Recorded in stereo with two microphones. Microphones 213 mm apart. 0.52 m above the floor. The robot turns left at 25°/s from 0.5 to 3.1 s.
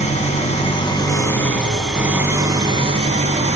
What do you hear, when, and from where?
0.0 s an engine running: 30° left, 1.3 m; by 3.6 s 35° right, 1.3 m